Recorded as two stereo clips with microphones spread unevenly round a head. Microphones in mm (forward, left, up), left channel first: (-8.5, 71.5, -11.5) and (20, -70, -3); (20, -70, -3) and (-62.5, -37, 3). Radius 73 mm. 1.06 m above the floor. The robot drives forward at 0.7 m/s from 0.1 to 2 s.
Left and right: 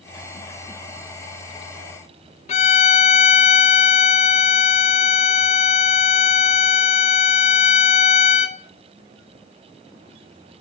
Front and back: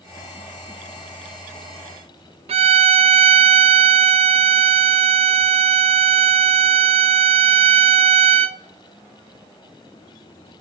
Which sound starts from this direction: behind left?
A violin, at 2.5 s.